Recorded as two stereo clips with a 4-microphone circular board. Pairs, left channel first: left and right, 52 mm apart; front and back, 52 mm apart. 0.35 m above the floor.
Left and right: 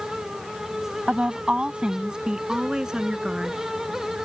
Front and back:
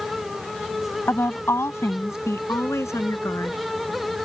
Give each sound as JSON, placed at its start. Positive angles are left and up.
{"t": 1.1, "sound": "a woman speaking", "azimuth_deg": -25}